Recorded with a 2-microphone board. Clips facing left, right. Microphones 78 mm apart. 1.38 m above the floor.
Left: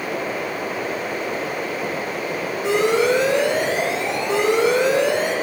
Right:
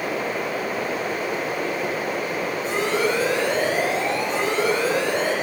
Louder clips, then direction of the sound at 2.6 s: Left 6 dB; 75° left (ahead or behind).